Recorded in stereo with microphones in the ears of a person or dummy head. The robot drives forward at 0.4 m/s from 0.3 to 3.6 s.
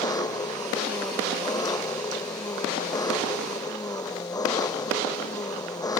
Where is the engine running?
10° left (ahead or behind).